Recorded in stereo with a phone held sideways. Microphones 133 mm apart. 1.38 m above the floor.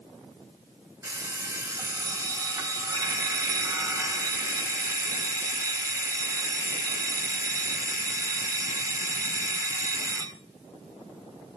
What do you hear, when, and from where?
1.0 s an alarm clock: 25° right (ahead or behind), 3 m